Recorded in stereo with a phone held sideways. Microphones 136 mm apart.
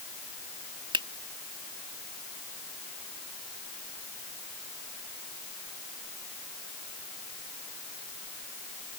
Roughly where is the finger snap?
Right.